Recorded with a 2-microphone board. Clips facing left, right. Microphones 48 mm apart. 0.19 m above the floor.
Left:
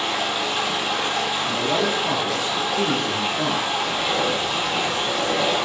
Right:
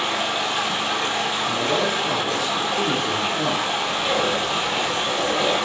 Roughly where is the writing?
Left.